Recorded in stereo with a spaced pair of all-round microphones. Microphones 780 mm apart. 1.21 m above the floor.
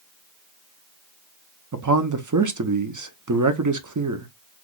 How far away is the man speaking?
About 0.6 m.